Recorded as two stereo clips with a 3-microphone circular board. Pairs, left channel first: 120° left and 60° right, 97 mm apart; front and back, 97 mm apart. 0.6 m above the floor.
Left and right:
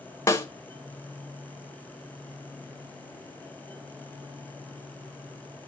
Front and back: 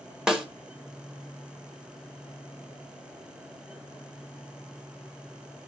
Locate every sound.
0.3 s a snare drum: 105° left, 0.9 m